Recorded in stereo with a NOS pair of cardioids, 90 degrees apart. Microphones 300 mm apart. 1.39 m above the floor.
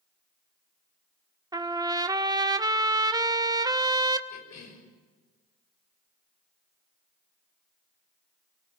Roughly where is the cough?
Ahead left.